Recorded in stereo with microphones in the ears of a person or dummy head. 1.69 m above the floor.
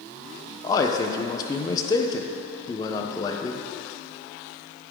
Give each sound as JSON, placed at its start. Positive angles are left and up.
{"t": 0.6, "sound": "a man speaking", "side_deg": 30, "distance_m": 0.9}